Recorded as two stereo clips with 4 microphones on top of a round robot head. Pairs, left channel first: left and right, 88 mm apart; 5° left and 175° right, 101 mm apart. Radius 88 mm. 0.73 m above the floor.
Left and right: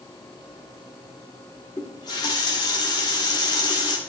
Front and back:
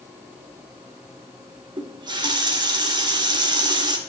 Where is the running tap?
140° left, 1.3 m.